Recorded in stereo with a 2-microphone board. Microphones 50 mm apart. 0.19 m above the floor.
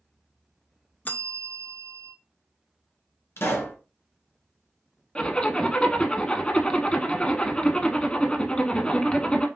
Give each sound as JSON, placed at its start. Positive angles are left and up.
{"t": 1.1, "sound": "a bell", "side_deg": 35, "distance_m": 0.5}
{"t": 3.4, "sound": "a pop", "side_deg": 55, "distance_m": 1.8}
{"t": 5.2, "sound": "a zipper", "side_deg": 25, "distance_m": 0.7}